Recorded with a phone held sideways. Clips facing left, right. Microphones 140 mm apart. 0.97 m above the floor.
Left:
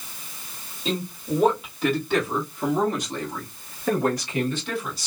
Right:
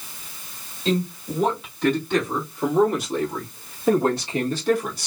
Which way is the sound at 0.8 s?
10° left (ahead or behind).